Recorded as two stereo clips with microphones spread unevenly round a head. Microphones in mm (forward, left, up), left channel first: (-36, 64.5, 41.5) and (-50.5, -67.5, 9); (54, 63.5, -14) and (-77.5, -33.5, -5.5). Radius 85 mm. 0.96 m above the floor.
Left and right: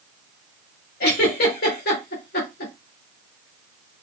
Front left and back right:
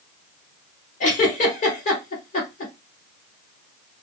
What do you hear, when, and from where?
1.0 s a giggle: 75° left, 2 m